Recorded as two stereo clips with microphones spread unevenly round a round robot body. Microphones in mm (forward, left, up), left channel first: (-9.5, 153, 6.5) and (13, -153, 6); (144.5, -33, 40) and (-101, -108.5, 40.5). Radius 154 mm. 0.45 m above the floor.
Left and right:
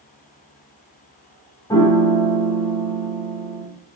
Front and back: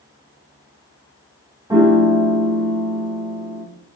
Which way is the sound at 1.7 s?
150° left.